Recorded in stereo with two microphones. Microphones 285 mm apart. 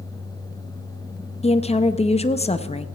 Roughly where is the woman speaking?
Left.